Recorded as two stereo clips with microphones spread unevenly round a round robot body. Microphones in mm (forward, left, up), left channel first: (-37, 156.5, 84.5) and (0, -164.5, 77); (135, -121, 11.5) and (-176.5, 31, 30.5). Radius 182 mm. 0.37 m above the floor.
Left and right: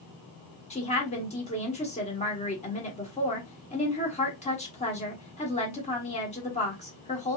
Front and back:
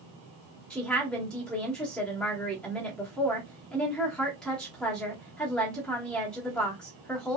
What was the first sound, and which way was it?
A woman speaking, 50° left.